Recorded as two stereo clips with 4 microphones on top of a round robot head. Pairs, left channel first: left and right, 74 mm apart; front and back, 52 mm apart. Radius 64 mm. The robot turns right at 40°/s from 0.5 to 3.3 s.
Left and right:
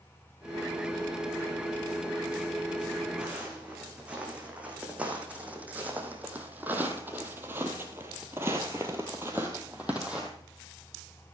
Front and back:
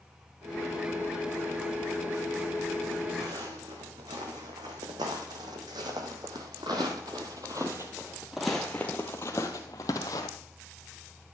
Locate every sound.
3.2 s footsteps: 170° right, 4 m; by 10.3 s 10° right, 1.8 m